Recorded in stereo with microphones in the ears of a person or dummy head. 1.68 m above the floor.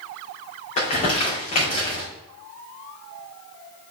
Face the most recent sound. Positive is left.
turn(degrees=40)  # may be behind; listen again after turning